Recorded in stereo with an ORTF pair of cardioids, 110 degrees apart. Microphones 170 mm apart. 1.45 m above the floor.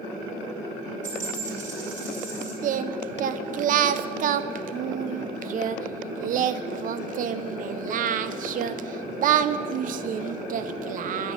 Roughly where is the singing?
Ahead right.